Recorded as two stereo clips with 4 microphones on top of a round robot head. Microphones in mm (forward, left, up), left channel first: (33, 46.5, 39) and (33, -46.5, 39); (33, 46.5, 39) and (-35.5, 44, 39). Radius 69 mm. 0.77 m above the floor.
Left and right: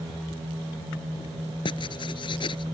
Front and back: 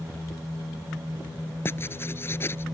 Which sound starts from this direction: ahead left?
Writing, at 1.6 s.